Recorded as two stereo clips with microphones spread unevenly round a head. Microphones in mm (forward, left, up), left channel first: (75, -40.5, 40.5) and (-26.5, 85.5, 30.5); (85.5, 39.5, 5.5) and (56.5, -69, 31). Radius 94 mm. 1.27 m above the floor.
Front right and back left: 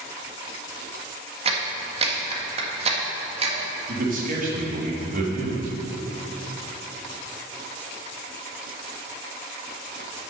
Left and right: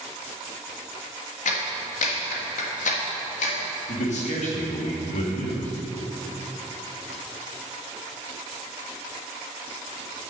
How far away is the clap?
About 1.7 m.